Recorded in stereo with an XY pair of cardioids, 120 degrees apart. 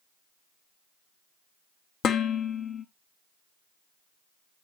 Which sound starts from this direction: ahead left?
Dishes clattering, at 2.0 s.